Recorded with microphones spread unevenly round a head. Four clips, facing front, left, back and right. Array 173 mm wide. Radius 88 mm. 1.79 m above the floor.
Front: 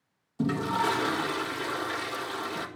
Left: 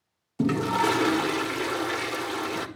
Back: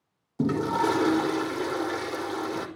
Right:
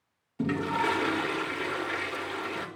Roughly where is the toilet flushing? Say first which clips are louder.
Left 4 dB, back 3 dB; behind left.